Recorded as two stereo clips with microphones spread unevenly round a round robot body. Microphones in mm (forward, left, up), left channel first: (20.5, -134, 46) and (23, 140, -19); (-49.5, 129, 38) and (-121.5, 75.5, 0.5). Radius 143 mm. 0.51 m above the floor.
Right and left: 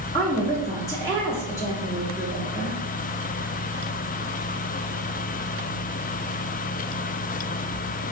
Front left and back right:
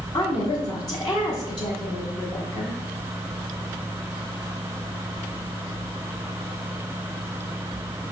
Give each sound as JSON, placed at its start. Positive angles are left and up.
{"t": 0.1, "sound": "a woman speaking", "azimuth_deg": 10, "distance_m": 0.9}